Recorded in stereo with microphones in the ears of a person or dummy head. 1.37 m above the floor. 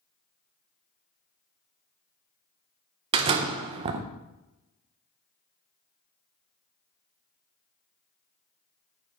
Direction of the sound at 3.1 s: 30° right (ahead or behind).